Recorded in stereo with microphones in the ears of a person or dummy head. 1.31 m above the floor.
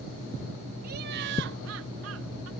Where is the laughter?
40° right (ahead or behind); by 2.5 s 75° right (ahead or behind).